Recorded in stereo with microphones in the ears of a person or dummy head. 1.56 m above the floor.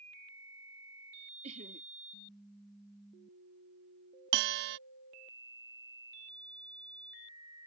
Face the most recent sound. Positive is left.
turn(degrees=-60)  # may be behind; listen again after turning